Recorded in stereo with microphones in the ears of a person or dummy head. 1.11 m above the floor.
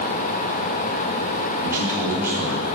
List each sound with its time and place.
1.6 s a man speaking: 10° right (ahead or behind), 2 m